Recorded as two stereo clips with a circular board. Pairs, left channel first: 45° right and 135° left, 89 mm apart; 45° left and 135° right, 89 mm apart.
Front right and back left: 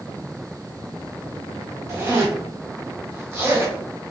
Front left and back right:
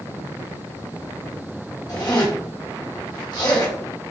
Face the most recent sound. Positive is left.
turn(degrees=80)